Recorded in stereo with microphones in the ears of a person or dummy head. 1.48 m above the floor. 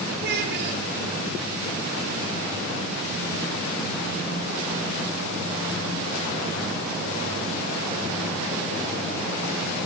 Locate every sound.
0.2 s a child speaking: 55° right (ahead or behind), 4 m